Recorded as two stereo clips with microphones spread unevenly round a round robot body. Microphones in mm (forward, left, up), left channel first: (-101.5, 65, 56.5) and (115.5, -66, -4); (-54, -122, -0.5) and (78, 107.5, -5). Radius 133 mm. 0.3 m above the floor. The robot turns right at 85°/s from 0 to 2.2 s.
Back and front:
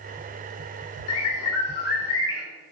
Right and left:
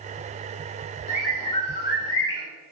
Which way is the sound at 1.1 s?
135° left.